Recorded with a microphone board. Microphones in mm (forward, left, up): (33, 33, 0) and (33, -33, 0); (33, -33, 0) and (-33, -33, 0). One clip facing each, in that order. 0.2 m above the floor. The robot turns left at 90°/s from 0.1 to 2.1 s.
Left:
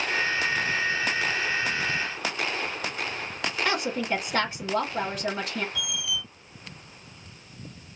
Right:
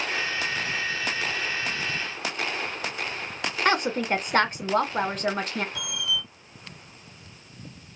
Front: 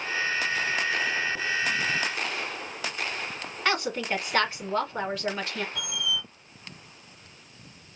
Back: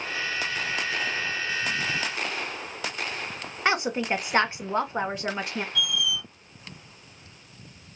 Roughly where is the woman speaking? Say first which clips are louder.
Right 5 dB, back 2 dB; behind right.